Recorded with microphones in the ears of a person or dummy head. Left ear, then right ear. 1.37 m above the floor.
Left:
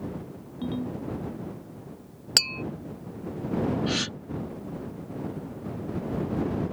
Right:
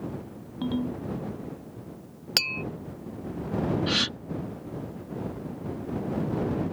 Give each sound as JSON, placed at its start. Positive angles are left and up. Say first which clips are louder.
{"t": 0.6, "sound": "a ringtone", "louder": "right 2 dB", "side_deg": -30}
{"t": 2.4, "sound": "tapping", "louder": "left 2 dB", "side_deg": 0}
{"t": 3.9, "sound": "a gasp", "louder": "right 3 dB", "side_deg": -20}